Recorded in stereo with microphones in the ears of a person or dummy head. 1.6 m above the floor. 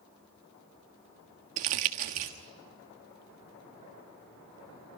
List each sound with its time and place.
1.6 s crumpling: 35° right (ahead or behind), 1.3 m